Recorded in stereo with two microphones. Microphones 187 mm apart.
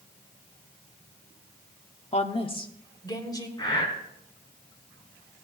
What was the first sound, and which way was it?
A woman speaking, 35° left (ahead or behind).